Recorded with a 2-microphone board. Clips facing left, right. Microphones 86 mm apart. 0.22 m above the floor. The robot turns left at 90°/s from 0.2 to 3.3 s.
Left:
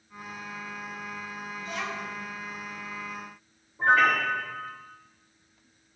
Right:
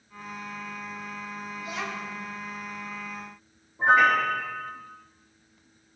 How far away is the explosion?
I don't hear an explosion.